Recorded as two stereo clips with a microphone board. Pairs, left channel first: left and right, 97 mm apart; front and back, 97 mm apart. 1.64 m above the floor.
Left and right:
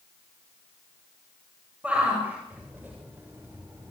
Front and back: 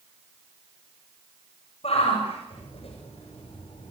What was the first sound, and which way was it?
A shout, 15° right.